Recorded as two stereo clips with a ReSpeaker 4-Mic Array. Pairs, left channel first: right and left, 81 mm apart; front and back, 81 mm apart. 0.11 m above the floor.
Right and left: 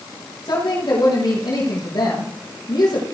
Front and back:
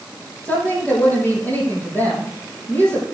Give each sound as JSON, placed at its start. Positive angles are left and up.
{"t": 0.5, "sound": "a woman speaking", "azimuth_deg": -65, "distance_m": 4.5}